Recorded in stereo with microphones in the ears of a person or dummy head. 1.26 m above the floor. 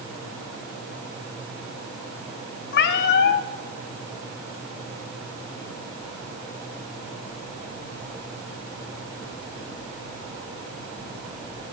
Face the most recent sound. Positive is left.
turn(degrees=60)  # may be behind; listen again after turning